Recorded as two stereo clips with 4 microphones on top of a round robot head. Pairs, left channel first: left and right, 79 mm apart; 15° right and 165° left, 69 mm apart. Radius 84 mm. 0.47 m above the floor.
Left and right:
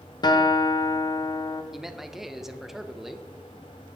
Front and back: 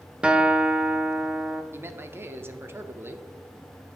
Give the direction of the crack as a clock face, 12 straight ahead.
I don't hear a crack.